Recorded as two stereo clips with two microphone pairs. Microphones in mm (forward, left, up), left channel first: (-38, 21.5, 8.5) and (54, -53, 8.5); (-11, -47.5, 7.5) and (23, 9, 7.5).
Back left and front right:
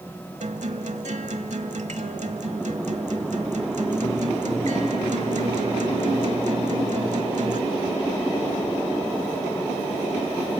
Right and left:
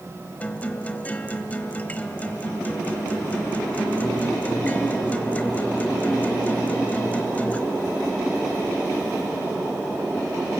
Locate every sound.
0.4 s a guitar: 55° right, 1.0 m